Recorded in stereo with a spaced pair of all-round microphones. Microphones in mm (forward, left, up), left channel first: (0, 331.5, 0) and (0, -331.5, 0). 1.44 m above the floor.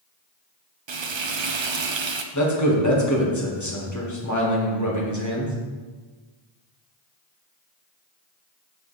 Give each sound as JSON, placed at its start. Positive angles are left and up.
{"t": 0.9, "sound": "frying", "side_deg": -45, "distance_m": 0.5}
{"t": 2.3, "sound": "a man speaking", "side_deg": 25, "distance_m": 1.6}